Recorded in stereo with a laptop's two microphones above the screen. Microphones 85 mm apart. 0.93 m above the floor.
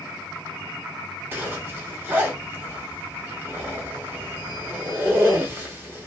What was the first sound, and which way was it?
A zipper, 25° right (ahead or behind).